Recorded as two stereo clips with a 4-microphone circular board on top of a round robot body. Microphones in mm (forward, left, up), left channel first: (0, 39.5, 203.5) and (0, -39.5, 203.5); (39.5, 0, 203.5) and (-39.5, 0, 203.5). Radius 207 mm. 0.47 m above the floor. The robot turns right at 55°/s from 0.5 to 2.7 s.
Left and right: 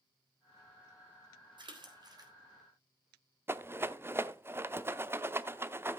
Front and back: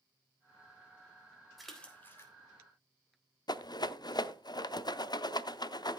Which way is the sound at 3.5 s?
30° right.